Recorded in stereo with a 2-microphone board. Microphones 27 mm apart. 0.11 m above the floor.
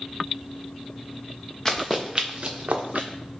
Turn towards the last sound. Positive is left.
turn(degrees=-80)